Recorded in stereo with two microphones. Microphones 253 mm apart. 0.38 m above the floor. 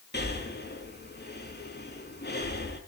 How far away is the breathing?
About 4 m.